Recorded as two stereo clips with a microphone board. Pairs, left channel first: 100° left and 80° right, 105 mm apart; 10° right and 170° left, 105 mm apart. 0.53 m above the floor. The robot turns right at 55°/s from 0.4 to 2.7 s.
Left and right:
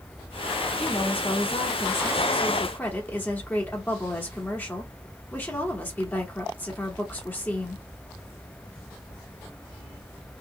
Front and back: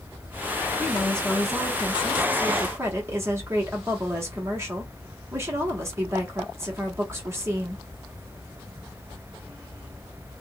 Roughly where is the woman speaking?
Ahead left.